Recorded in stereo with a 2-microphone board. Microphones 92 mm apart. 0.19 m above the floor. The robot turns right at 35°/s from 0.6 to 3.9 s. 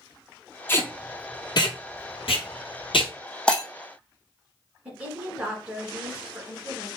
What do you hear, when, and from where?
0.7 s tape being pulled: 25° left (ahead or behind), 1.1 m; by 3.1 s 70° left (ahead or behind), 1.1 m
3.5 s breaking glass: 10° left (ahead or behind), 0.9 m; by 3.6 s 5° left (ahead or behind), 0.9 m
4.8 s a woman speaking: 15° right (ahead or behind), 1.9 m